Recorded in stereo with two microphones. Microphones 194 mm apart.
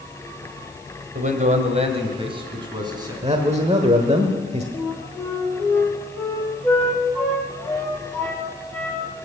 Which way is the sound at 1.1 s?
45° right (ahead or behind).